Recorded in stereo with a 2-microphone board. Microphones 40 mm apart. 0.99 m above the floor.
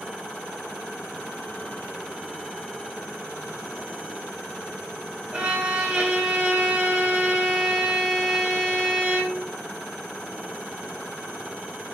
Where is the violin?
25° right (ahead or behind), 3.5 m.